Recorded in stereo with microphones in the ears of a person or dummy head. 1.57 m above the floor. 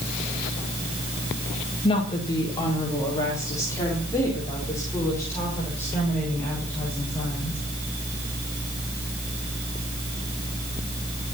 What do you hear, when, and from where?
1.8 s a woman speaking: 30° left (ahead or behind), 2 m; by 7.6 s 10° left (ahead or behind), 7 m